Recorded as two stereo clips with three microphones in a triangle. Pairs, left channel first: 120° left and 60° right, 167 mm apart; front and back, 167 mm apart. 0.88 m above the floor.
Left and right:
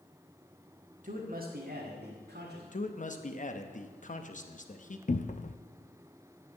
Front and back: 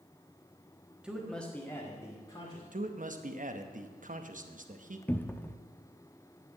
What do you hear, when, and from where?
1.0 s a man speaking: 95° right, 1.3 m; by 2.6 s 65° right, 2.5 m
2.7 s a man speaking: 150° left, 0.9 m
5.1 s a cupboard door: 75° left, 0.5 m